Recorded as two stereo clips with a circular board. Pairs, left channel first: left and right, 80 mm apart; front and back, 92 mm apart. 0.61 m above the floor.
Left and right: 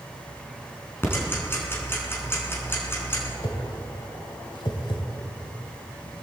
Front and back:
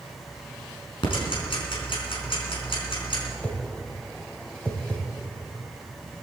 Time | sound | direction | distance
1.0 | ticking | 25° left | 4 m
3.4 | a whoosh | 80° left | 2 m